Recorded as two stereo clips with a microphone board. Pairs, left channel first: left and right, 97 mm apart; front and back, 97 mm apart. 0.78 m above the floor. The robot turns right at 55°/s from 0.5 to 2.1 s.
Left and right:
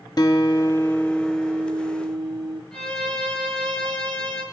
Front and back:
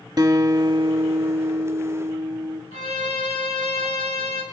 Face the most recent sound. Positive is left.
turn(degrees=10)